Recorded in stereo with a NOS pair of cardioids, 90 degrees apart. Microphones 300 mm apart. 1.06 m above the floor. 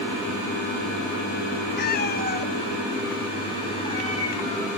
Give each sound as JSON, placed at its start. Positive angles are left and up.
{"t": 1.8, "sound": "a cat meowing", "azimuth_deg": 35, "distance_m": 1.9}